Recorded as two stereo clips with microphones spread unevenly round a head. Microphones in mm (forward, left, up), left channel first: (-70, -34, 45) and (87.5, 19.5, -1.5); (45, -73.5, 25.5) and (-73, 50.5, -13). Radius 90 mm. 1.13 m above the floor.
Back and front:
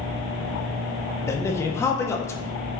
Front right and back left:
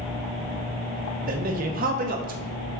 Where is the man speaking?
115° left, 0.7 m.